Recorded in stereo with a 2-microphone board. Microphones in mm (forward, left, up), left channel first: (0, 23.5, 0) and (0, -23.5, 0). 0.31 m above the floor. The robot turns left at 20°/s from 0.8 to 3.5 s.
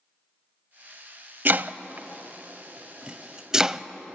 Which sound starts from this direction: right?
Chopping, at 1.4 s.